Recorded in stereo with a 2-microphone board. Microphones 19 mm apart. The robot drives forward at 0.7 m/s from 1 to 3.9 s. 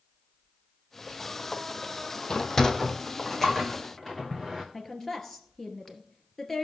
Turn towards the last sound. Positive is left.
turn(degrees=15)  # may be behind; listen again after turning